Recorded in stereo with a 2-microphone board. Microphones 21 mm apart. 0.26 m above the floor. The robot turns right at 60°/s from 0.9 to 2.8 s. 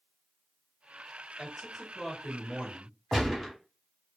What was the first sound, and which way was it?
A man speaking, 25° left.